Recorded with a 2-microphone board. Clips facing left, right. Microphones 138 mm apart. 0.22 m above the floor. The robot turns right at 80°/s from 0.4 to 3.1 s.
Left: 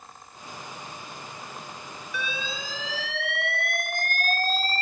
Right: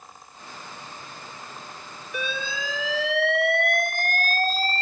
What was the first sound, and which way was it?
An alarm, 125° right.